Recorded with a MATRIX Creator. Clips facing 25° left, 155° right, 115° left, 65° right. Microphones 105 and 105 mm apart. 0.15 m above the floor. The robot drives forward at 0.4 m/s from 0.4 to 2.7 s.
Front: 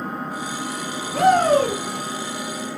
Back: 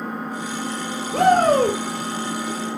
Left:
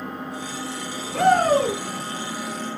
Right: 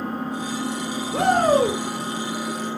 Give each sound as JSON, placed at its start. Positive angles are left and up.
{"t": 0.0, "sound": "an engine running", "azimuth_deg": -70, "distance_m": 1.3}
{"t": 1.1, "sound": "a shout", "azimuth_deg": -130, "distance_m": 2.5}